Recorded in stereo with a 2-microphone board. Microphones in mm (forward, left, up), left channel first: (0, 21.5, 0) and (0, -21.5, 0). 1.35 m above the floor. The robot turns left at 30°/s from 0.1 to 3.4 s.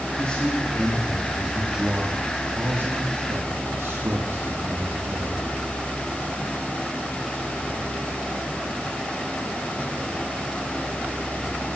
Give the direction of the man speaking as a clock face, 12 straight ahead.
11 o'clock.